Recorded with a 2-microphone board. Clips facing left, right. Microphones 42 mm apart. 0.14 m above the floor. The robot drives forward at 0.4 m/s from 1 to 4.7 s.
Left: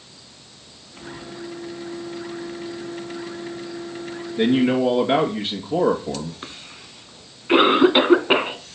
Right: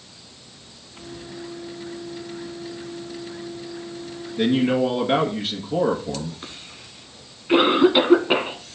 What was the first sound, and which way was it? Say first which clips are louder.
A man speaking: left 1 dB; 15° left (ahead or behind).